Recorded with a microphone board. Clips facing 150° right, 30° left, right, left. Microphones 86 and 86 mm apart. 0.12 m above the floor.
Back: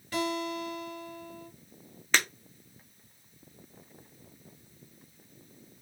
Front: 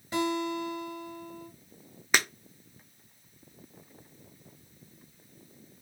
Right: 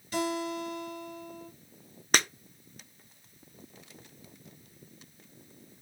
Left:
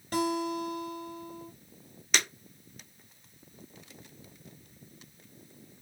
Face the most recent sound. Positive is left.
turn(degrees=-50)